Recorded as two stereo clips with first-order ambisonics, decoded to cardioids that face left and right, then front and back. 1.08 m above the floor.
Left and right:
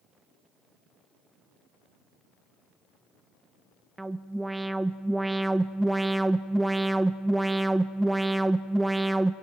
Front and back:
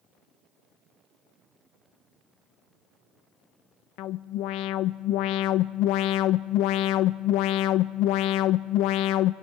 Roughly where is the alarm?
Ahead.